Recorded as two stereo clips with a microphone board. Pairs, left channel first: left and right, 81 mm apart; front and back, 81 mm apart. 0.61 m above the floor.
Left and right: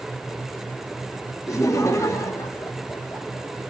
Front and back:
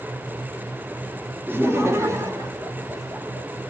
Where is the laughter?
125° left, 1.5 m; by 3.5 s 145° left, 3 m.